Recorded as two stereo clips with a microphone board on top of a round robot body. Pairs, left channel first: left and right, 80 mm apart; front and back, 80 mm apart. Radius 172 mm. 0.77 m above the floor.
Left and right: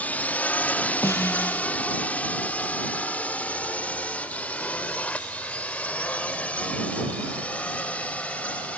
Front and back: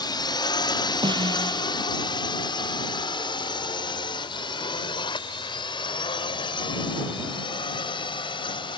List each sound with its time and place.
0.0 s a drone: 20° left; by 8.8 s 15° left
1.0 s a snare drum: 145° left